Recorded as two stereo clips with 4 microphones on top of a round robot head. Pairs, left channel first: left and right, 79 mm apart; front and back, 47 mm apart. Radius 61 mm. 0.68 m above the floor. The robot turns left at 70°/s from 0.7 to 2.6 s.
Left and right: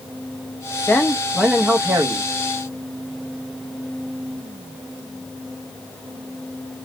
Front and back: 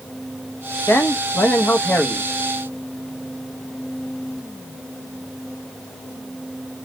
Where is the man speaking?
30° left, 1.0 m; by 2.3 s 70° right, 1.0 m.